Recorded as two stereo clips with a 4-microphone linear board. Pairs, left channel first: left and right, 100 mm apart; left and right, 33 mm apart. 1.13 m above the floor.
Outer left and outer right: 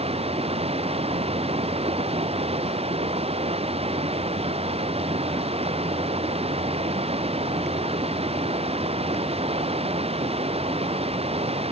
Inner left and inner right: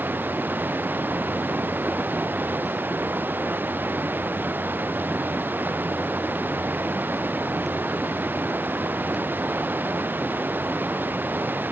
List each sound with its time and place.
0.0 s running water: 80° right